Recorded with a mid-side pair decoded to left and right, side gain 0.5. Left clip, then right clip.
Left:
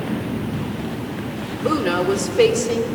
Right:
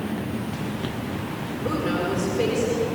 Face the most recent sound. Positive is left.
turn(degrees=70)